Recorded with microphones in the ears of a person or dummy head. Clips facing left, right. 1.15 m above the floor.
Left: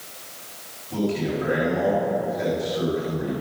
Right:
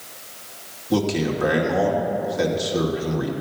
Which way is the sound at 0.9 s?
85° right.